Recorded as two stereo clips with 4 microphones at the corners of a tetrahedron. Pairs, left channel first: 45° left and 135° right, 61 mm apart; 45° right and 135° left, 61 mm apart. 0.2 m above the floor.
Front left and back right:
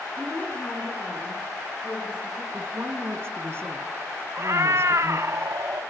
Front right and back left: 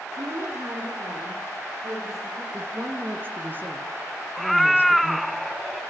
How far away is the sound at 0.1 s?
About 2.5 m.